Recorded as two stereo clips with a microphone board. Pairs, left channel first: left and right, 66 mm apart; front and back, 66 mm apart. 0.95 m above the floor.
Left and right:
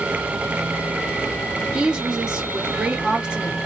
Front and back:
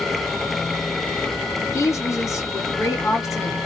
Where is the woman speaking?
20° right, 1.0 m.